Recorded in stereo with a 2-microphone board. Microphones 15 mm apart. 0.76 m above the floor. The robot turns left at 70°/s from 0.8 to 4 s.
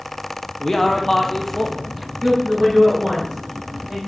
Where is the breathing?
No breathing in this recording.